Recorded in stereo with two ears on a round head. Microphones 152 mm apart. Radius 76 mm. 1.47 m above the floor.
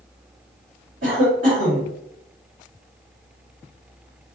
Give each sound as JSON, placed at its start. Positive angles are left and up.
{"t": 1.0, "sound": "a cough", "side_deg": -55, "distance_m": 1.7}